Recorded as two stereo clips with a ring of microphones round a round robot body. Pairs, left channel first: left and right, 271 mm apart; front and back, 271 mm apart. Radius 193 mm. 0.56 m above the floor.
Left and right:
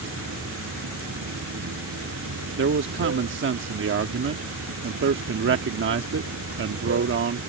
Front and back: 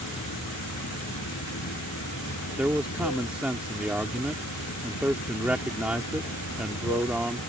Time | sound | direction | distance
0.0 | running water | 55° right | ?
2.6 | a man speaking | 95° right | ?